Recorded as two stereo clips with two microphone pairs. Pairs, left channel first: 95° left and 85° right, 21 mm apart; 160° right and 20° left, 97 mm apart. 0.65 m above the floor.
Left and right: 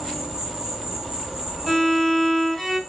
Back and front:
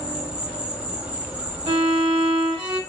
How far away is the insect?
About 1.5 m.